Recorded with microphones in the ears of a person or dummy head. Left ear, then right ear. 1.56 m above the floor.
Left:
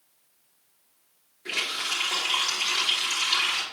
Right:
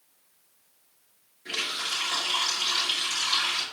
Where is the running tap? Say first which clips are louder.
Left 2 dB; 75° left (ahead or behind), 3.5 m.